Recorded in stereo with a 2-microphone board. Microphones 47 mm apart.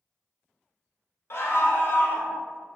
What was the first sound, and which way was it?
A scream, 60° left (ahead or behind).